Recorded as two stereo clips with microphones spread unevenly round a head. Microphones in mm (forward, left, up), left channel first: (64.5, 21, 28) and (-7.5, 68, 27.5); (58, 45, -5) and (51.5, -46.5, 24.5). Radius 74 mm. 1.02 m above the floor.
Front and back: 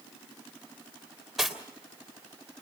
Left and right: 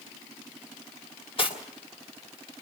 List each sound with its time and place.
1.4 s cutlery clinking: 60° left, 3 m